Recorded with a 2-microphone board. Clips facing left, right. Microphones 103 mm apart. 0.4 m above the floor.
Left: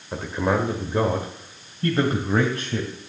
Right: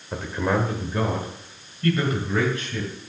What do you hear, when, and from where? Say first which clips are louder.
0.1 s a man speaking: left 1 dB; 5° left (ahead or behind), 1.2 m; by 2.9 s 40° left (ahead or behind), 2 m